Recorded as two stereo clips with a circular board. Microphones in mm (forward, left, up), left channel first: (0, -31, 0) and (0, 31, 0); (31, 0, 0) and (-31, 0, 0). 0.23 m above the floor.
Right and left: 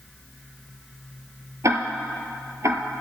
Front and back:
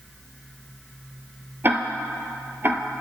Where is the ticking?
125° left, 0.8 m.